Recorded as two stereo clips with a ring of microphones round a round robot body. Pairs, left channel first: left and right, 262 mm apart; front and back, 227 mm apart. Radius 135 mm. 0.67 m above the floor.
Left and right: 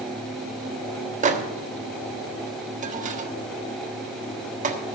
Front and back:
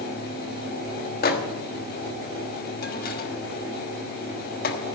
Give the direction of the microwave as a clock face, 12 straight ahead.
1 o'clock.